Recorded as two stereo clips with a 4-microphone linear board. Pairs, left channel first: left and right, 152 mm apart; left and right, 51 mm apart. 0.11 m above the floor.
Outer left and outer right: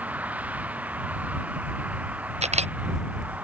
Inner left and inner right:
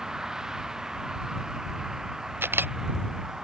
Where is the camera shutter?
45° right (ahead or behind).